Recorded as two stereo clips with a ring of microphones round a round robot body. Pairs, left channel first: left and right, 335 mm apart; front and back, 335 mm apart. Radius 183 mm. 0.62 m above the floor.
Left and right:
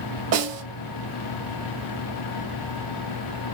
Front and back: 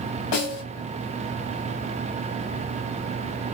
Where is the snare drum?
45° right, 2.5 m.